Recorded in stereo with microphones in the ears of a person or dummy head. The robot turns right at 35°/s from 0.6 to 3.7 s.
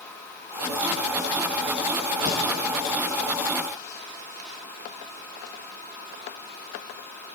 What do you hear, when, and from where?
2.2 s a thud: 25° right (ahead or behind), 3 m; by 2.4 s 20° right (ahead or behind), 3 m